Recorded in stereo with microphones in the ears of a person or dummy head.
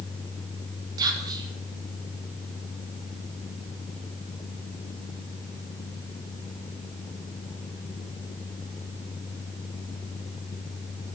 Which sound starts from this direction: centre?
Whispering, at 1.0 s.